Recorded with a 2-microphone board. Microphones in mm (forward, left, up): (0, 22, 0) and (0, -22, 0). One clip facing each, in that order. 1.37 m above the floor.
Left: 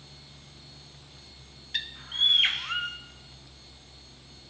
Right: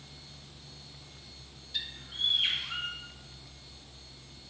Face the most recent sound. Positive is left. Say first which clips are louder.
# left 7 dB
turn(degrees=60)  # may be behind; listen again after turning